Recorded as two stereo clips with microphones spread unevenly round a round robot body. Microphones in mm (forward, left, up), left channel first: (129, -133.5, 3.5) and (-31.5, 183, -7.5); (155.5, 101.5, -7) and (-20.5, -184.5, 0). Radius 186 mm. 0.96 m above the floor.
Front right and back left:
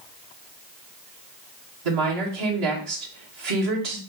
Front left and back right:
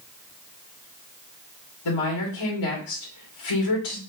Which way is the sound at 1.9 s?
95° left.